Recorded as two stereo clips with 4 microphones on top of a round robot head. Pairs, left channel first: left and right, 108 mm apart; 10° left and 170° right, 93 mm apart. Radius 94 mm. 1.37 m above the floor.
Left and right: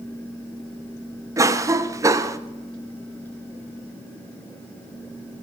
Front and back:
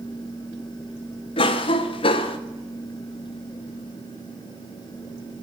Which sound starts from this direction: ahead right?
A cough, at 1.4 s.